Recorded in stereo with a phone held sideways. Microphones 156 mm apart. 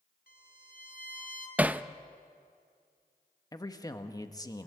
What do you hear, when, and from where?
0.3 s a violin: 80° left, 3 m
1.6 s hammering: 10° right (ahead or behind), 0.5 m
3.5 s a man speaking: 25° left (ahead or behind), 1.2 m